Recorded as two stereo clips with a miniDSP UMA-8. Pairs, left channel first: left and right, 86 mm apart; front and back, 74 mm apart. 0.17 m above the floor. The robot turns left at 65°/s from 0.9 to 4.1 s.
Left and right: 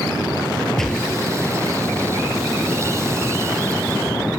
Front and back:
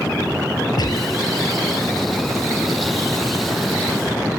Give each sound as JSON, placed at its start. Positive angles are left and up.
{"t": 0.8, "sound": "a gunshot", "azimuth_deg": 5}